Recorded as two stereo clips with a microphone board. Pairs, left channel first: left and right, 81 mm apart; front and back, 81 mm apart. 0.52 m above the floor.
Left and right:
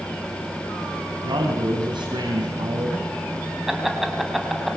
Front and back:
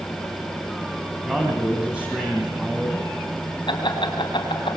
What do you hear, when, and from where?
1.2 s a man speaking: 105° right, 3.5 m
3.7 s laughter: 5° right, 4 m